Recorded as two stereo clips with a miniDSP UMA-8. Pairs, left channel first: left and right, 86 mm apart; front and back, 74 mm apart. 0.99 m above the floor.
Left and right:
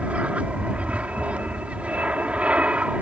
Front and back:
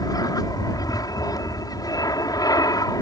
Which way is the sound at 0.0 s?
15° right.